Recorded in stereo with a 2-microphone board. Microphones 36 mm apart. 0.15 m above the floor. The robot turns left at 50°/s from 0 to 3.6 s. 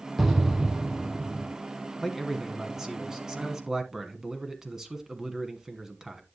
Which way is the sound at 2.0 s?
5° right (ahead or behind).